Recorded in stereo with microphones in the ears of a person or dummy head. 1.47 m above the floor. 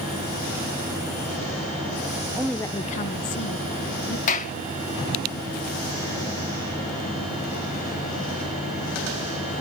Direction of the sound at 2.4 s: 10° right (ahead or behind).